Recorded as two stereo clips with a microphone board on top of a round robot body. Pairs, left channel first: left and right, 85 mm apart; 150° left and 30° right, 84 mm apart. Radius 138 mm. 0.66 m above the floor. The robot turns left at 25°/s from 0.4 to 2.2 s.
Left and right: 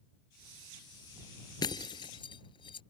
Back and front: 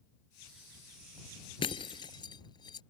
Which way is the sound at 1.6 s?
130° left.